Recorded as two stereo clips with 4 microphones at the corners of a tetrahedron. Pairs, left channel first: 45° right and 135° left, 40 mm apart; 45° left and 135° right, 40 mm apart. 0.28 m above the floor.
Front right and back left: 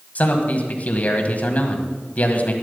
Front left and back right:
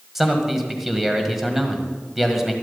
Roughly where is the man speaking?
Ahead right.